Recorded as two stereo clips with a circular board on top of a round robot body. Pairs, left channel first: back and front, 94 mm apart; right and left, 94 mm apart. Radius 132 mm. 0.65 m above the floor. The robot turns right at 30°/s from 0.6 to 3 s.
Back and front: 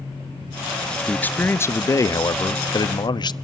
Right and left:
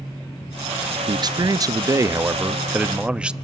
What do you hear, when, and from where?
1.1 s a man speaking: 110° left, 0.8 m; by 3.3 s 165° left, 0.8 m